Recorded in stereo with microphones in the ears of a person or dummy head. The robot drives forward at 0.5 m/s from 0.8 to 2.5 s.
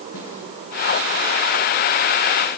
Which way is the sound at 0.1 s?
75° left (ahead or behind).